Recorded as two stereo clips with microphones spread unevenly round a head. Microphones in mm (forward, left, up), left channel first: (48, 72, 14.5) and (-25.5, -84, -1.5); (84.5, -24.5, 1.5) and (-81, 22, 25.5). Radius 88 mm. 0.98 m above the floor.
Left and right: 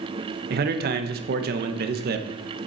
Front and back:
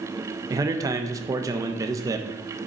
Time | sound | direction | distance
0.5 | a man speaking | 120° right | 0.7 m